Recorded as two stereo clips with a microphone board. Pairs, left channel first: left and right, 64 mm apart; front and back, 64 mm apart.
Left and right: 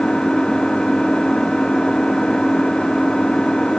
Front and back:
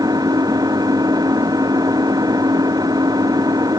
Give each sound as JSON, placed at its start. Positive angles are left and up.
{"t": 0.0, "sound": "an engine running", "azimuth_deg": 170}